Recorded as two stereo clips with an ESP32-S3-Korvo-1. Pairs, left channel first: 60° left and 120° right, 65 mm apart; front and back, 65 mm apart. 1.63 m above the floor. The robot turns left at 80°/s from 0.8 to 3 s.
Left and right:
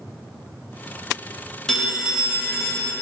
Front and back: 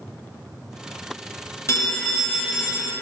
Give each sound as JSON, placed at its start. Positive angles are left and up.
{"t": 1.7, "sound": "a phone ringing", "azimuth_deg": -15, "distance_m": 0.8}